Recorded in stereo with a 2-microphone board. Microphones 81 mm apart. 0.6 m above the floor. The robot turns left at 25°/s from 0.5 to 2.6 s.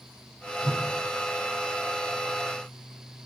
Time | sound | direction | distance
0.6 | a whoosh | 20° left (ahead or behind) | 2.5 m